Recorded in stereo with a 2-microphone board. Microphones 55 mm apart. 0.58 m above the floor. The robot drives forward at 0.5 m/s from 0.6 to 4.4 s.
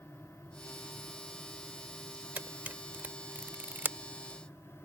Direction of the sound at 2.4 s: 30° right (ahead or behind).